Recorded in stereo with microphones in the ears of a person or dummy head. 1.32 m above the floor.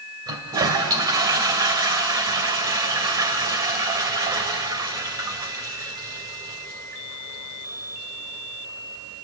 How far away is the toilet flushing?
About 1.9 m.